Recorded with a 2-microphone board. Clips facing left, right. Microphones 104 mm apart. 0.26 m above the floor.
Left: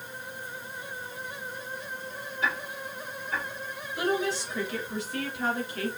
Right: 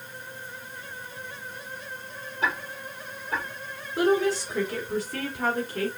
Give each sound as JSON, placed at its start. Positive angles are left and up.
{"t": 2.4, "sound": "ticking", "side_deg": -35, "distance_m": 4.0}
{"t": 4.0, "sound": "a woman speaking", "side_deg": -40, "distance_m": 2.5}